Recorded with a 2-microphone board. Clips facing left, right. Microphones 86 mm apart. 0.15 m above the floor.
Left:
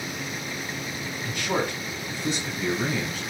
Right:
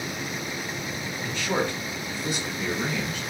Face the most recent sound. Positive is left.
turn(degrees=45)  # may be behind; listen again after turning